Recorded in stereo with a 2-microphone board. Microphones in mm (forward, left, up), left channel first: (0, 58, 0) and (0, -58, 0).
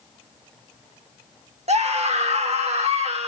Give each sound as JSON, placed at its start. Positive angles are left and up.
{"t": 1.7, "sound": "a scream", "side_deg": -70, "distance_m": 3.0}